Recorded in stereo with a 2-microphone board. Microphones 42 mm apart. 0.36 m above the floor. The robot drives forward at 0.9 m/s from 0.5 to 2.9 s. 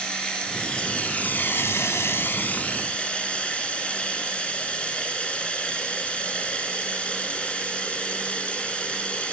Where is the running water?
20° left (ahead or behind), 1.3 m; by 9.3 s 30° left (ahead or behind), 1.0 m.